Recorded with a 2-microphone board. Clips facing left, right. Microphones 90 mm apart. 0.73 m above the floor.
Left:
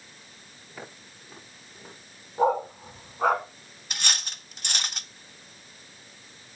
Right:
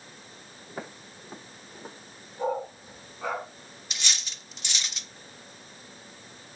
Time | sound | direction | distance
0.7 | footsteps | 40° right (ahead or behind) | 8.5 m
2.4 | a dog barking | 60° left (ahead or behind) | 1.6 m
3.9 | cutlery clinking | 55° left (ahead or behind) | 0.6 m